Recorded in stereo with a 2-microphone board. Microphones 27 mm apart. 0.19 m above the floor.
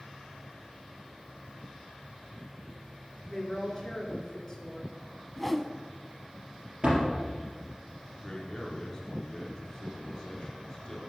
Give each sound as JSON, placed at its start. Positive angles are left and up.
{"t": 3.3, "sound": "a woman speaking", "side_deg": 30, "distance_m": 2.5}
{"t": 5.4, "sound": "a whoosh", "side_deg": 10, "distance_m": 0.5}
{"t": 6.8, "sound": "a door slam", "side_deg": -35, "distance_m": 3.5}
{"t": 8.2, "sound": "a man speaking", "side_deg": 35, "distance_m": 3.0}